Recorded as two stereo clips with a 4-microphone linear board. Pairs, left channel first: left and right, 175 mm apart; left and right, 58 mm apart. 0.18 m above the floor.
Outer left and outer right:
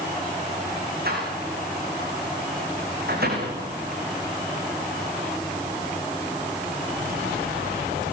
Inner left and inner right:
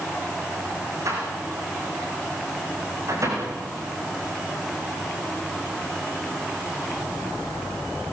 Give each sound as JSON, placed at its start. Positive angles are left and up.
{"t": 1.1, "sound": "a door slam", "side_deg": -65, "distance_m": 10.0}